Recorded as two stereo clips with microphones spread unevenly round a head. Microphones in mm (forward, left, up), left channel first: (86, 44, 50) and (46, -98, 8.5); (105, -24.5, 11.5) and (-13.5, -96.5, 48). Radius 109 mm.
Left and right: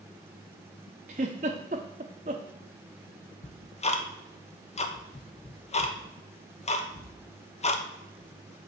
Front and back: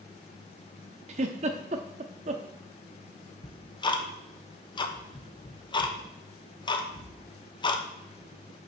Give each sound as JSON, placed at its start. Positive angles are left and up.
{"t": 1.1, "sound": "a giggle", "azimuth_deg": -170, "distance_m": 0.6}
{"t": 3.4, "sound": "ticking", "azimuth_deg": 30, "distance_m": 1.1}